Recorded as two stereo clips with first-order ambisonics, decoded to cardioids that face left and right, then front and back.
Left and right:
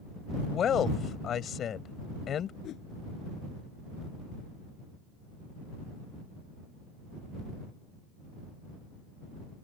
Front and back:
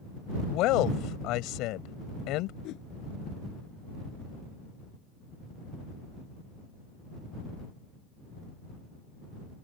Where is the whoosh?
40° left.